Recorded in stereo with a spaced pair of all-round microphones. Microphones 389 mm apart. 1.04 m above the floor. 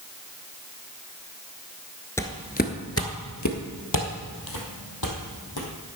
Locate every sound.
2.2 s footsteps: 5° left (ahead or behind), 1.0 m; by 5.7 s 70° left (ahead or behind), 3 m